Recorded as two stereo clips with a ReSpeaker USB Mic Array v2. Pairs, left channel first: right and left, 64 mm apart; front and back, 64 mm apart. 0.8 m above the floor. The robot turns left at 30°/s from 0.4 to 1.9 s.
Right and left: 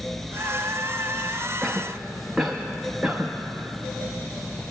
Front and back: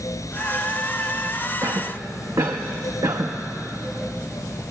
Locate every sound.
1.6 s a cough: 175° right, 0.8 m; by 4.7 s 175° left, 0.8 m